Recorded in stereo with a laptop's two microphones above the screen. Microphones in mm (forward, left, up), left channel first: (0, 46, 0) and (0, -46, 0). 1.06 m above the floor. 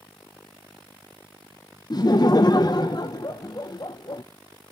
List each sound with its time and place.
1.9 s laughter: 50° left (ahead or behind), 0.5 m